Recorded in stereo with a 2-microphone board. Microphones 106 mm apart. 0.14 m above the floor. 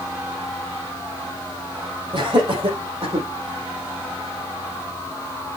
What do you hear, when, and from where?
2.1 s laughter: 55° right (ahead or behind), 4 m; by 3.3 s 60° right (ahead or behind), 5 m